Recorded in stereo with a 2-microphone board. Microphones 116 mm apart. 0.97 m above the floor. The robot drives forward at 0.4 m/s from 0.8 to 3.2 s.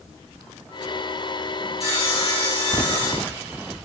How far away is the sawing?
About 1.8 m.